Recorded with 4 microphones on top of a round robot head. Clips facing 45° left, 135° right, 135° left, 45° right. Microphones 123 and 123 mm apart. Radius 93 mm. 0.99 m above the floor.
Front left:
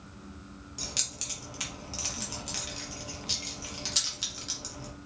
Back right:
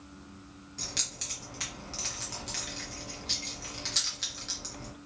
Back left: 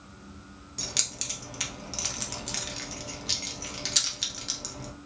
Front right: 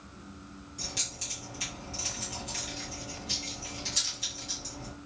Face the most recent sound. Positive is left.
turn(degrees=120)